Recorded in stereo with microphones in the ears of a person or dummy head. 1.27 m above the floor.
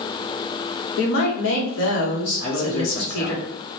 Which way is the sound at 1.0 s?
70° left (ahead or behind).